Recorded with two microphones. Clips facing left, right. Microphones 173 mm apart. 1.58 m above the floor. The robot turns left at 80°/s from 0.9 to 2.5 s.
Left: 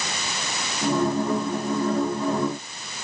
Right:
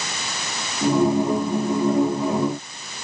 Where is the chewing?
I don't hear chewing.